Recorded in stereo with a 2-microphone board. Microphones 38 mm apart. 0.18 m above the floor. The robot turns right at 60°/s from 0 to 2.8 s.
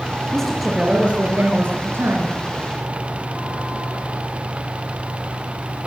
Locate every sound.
0.3 s a woman speaking: 170° left, 4 m; by 2.4 s 70° right, 4 m